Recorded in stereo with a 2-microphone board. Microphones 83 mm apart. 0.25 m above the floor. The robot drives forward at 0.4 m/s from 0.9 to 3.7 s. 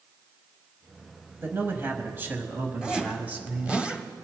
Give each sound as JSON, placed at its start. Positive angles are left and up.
{"t": 1.4, "sound": "a man speaking", "side_deg": -30, "distance_m": 1.1}
{"t": 2.8, "sound": "a zipper", "side_deg": -10, "distance_m": 1.2}